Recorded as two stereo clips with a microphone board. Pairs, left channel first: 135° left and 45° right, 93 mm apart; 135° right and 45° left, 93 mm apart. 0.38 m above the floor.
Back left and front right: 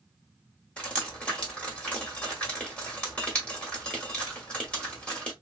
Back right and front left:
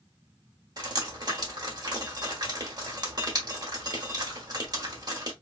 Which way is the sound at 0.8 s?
60° left.